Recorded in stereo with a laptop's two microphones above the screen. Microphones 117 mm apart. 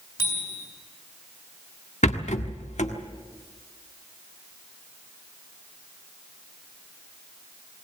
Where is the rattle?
80° left, 1.5 m.